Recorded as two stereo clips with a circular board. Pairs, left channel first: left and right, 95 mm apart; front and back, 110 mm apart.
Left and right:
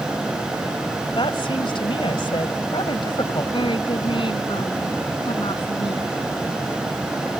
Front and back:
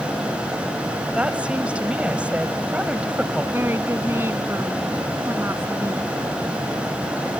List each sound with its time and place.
1.1 s a woman speaking: 100° left
3.5 s a woman speaking: 110° left